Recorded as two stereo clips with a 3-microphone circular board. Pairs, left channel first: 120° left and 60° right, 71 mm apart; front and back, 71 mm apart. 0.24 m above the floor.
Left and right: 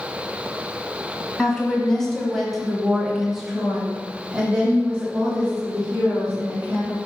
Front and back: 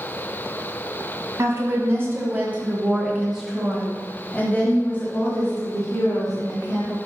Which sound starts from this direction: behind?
A woman speaking, at 1.4 s.